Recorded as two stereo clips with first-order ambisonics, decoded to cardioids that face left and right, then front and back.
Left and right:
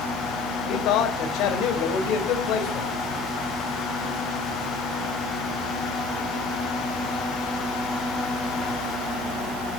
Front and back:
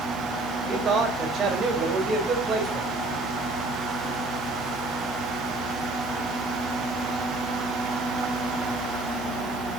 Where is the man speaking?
115° left, 3.5 m.